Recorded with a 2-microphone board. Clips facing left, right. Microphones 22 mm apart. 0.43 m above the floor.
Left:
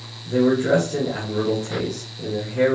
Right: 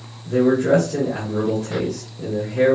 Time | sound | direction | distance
0.2 | a man speaking | 5° left (ahead or behind) | 1.1 m